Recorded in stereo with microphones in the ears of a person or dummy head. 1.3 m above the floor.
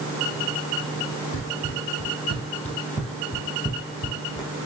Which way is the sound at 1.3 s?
50° left (ahead or behind).